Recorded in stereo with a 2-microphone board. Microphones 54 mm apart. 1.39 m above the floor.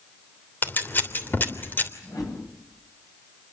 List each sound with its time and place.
0.6 s scissors: 35° left (ahead or behind), 3 m
2.0 s a whoosh: 90° left, 9.5 m